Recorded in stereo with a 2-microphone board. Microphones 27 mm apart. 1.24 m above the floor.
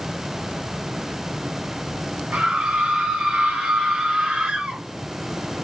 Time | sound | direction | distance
2.3 | a scream | 60° right (ahead or behind) | 7 m